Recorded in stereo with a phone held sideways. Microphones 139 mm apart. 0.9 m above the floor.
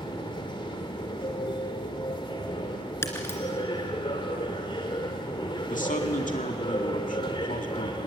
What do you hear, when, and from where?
0.0 s a machine running: 35° left (ahead or behind), 2 m
3.0 s breaking glass: 20° left (ahead or behind), 2.5 m
5.7 s a man speaking: 70° left (ahead or behind), 2 m